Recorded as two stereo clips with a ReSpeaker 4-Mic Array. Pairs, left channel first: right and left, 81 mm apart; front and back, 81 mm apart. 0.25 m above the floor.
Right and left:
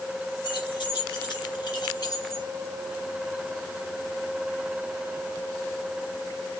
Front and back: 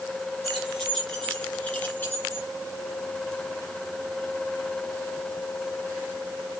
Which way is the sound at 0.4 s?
90° right.